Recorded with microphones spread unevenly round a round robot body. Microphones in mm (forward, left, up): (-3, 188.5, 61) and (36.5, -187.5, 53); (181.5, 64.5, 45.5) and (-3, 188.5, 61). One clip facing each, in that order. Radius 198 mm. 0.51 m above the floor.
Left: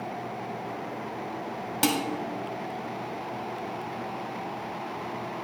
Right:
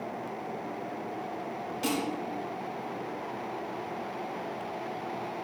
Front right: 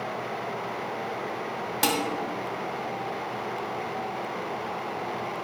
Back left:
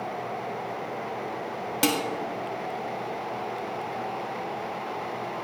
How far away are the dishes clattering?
About 2 m.